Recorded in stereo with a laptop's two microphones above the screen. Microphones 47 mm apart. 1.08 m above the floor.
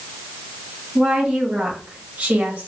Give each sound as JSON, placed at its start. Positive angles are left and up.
{"t": 0.9, "sound": "a woman speaking", "side_deg": -10, "distance_m": 2.5}